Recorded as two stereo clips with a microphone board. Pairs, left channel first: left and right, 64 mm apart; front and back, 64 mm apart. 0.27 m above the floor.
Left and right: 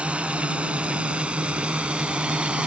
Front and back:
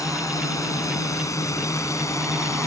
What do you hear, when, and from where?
0.0 s a drone: 20° right